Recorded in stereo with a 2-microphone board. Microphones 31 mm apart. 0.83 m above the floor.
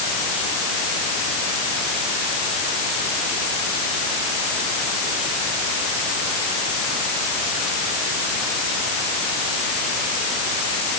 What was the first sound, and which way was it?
Only background noise.